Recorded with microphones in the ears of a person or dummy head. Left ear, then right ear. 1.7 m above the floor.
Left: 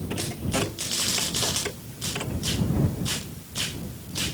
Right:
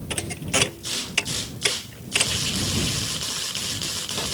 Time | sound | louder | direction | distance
0.1 | a thud | right 4 dB | 75° right (ahead or behind) | ?